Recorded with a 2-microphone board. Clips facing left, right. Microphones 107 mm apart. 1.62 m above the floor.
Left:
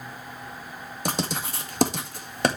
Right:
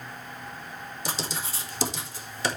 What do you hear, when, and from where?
1.1 s writing: 55° left (ahead or behind), 1.8 m